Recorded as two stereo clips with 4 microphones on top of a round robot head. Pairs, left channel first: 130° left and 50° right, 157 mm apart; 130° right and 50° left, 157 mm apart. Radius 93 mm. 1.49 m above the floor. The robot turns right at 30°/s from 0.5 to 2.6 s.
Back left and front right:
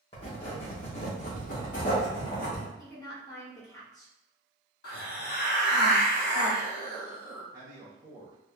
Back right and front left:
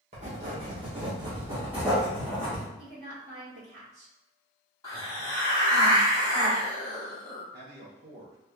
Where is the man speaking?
25° left, 0.9 m.